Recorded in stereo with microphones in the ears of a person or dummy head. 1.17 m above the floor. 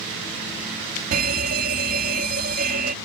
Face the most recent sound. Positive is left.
turn(degrees=-45)  # may be behind; listen again after turning